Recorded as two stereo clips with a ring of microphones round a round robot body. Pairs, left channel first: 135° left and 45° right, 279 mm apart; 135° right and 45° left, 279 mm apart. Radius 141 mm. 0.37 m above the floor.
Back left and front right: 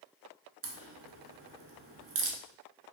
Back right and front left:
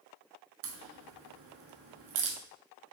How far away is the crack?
About 0.8 m.